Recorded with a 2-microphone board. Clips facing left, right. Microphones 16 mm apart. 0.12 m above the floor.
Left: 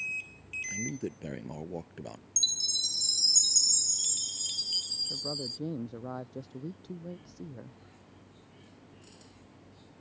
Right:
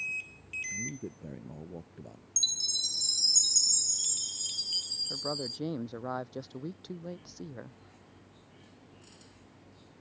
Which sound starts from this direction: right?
A man speaking, at 5.1 s.